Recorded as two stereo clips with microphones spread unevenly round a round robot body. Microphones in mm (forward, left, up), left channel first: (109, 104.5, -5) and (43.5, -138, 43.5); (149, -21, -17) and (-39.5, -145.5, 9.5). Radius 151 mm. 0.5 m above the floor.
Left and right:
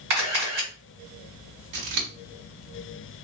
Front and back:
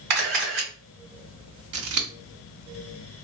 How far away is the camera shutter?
About 1.7 m.